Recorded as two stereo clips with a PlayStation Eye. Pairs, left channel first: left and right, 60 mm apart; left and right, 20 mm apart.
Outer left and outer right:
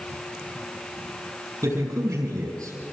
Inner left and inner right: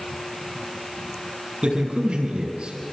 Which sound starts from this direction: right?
A man speaking, at 1.6 s.